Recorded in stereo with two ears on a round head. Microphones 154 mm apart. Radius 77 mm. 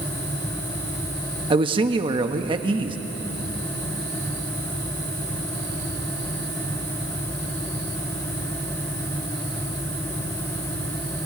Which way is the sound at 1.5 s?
30° right (ahead or behind).